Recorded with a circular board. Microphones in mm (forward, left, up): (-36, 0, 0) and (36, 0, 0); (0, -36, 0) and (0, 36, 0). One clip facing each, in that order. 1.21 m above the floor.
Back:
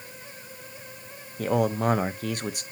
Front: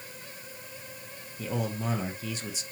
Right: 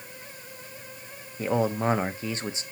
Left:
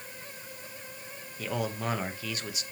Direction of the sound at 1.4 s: 150° right.